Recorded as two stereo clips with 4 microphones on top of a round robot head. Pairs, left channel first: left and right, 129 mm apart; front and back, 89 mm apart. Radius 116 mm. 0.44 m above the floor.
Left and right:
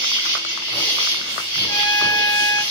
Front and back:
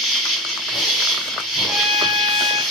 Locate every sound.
0.0 s an insect: 95° right, 1.6 m
1.7 s a trumpet: 110° left, 1.3 m